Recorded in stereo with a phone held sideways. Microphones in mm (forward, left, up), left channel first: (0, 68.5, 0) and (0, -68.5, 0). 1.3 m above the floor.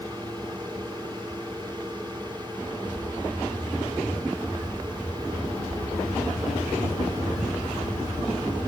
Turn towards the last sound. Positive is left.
turn(degrees=-35)  # may be behind; listen again after turning